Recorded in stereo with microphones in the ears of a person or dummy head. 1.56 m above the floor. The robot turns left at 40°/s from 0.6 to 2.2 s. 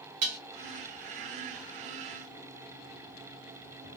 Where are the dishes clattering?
40° right (ahead or behind), 1.1 m.